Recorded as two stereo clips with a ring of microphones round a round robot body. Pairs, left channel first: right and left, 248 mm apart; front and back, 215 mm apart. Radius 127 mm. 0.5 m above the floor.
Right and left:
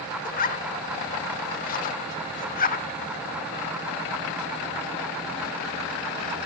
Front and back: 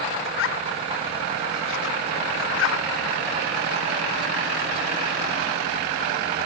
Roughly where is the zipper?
Ahead right.